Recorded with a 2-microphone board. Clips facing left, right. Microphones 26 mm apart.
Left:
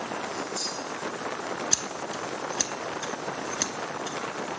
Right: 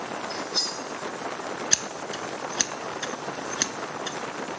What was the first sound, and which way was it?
Cutlery clinking, 70° right (ahead or behind).